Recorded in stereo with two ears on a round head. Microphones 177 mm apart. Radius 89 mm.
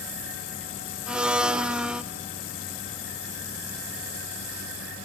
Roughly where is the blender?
Centre.